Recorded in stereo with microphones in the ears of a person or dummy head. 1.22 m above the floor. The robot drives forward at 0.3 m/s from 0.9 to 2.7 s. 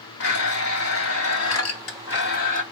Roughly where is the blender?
Left.